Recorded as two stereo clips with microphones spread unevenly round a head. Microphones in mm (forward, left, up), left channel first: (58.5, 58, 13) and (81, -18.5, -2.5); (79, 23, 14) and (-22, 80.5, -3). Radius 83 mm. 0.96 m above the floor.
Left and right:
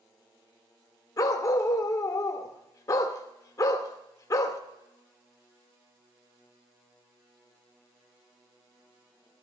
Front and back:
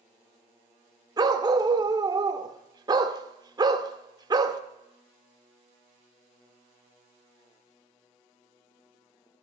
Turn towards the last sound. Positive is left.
turn(degrees=95)